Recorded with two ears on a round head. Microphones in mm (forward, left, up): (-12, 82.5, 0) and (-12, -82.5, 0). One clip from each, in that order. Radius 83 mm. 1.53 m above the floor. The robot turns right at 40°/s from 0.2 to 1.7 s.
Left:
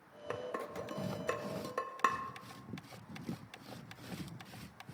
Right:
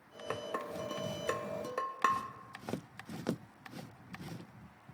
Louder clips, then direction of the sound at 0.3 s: Right 2 dB; 15° right (ahead or behind).